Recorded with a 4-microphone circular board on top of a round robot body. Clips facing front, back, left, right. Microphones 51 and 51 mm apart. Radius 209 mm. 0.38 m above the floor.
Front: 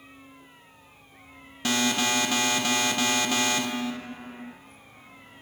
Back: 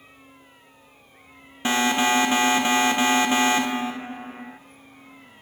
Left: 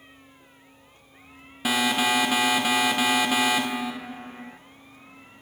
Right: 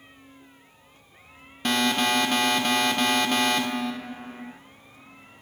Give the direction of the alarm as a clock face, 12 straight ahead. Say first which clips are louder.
Back 5 dB, even; 7 o'clock.